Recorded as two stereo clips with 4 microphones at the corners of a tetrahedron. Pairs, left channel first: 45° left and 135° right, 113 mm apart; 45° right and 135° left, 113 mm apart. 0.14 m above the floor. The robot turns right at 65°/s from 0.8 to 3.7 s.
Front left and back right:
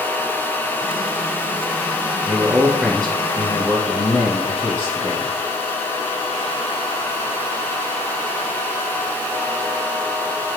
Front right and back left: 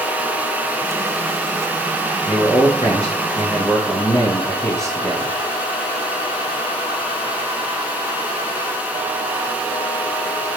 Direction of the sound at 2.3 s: 85° right.